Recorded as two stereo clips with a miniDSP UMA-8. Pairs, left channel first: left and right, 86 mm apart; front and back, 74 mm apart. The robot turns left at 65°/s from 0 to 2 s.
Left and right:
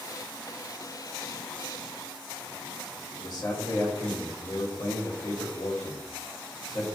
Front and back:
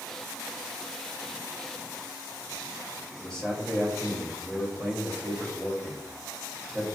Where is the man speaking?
80° left, 1.1 m.